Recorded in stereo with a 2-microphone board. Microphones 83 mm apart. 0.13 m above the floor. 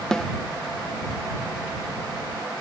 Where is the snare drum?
5° left (ahead or behind).